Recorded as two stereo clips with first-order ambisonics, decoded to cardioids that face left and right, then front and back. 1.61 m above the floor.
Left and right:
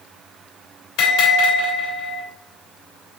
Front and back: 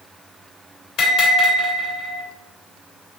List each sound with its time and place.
1.0 s a bell: 50° left, 3.5 m